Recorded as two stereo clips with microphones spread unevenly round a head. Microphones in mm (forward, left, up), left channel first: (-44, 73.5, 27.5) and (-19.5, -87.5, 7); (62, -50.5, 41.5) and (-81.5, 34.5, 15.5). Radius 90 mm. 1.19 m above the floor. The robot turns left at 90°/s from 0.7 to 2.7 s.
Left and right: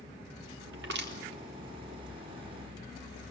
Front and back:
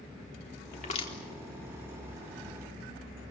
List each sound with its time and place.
0.7 s crushing: 65° right, 4 m; by 1.1 s 105° right, 4 m